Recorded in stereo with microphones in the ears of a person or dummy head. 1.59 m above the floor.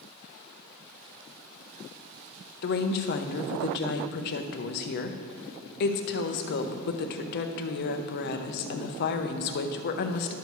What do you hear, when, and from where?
2.6 s a woman speaking: 45° left (ahead or behind), 0.6 m